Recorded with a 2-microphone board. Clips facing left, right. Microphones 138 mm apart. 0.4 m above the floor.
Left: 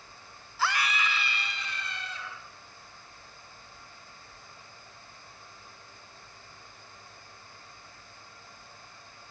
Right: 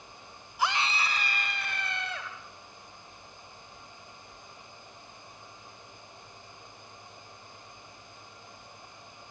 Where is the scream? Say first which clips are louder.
Even; 15° right (ahead or behind), 1.8 m; by 2.3 s 65° right (ahead or behind), 3 m.